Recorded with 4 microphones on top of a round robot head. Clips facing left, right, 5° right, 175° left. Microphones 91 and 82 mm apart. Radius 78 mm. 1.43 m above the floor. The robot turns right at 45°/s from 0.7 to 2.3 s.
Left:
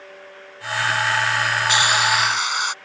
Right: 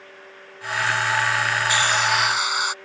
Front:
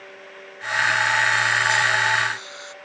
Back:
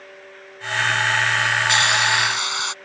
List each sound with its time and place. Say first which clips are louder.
1.7 s a hiss: left 2 dB, back 1 dB; 160° left; by 2.7 s 175° right